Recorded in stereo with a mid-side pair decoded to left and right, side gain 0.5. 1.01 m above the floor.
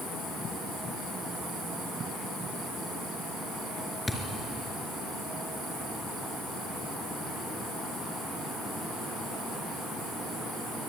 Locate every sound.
4.1 s a thud: 10° left, 4 m